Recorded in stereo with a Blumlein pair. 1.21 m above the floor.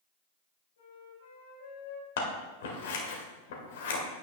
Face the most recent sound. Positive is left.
turn(degrees=55)